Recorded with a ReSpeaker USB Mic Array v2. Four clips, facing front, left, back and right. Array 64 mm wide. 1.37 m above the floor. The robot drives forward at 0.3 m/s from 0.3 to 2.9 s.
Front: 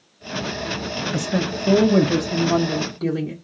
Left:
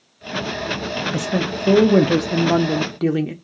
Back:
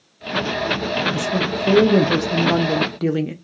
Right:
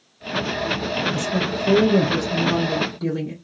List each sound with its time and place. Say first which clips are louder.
1.1 s a woman speaking: left 1 dB, back 2 dB; 75° left, 0.6 m; by 3.3 s 125° left, 0.7 m